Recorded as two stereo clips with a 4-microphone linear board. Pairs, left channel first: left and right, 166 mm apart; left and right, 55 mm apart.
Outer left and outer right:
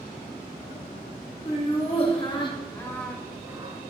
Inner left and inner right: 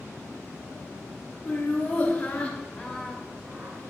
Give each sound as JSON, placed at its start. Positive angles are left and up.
{"t": 1.4, "sound": "laughter", "side_deg": 40, "distance_m": 2.0}